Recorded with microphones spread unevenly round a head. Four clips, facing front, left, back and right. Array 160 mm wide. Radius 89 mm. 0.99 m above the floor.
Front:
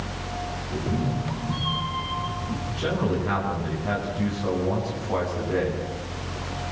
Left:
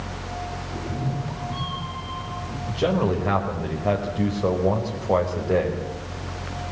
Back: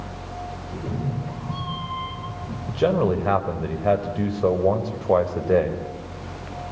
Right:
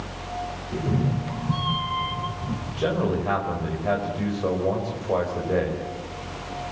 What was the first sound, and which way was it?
A cat meowing, 85° right.